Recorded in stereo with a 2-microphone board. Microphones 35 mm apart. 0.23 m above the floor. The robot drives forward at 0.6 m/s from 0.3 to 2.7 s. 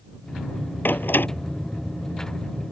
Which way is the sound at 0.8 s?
75° left (ahead or behind).